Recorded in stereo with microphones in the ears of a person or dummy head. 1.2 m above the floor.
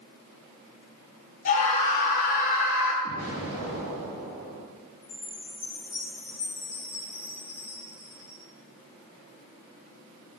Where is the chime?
15° left (ahead or behind), 5 m.